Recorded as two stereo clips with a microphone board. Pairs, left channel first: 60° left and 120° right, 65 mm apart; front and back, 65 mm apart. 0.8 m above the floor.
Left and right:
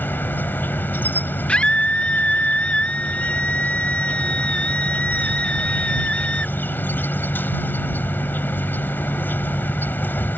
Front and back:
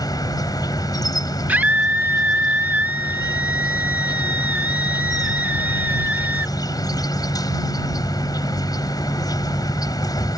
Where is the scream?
125° left.